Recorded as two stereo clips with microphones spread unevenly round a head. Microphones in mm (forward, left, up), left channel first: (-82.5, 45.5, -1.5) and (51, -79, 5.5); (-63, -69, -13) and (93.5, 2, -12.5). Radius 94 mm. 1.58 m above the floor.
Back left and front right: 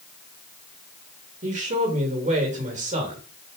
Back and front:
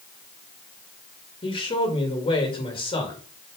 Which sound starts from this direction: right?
A man speaking, at 1.4 s.